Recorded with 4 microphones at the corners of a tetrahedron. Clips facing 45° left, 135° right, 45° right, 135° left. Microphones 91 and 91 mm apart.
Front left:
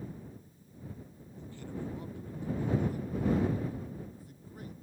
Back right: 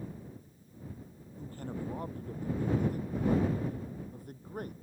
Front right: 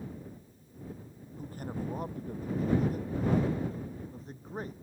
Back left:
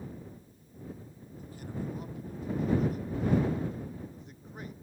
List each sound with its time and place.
1.4 s a man speaking: 90° right; by 4.7 s 100° right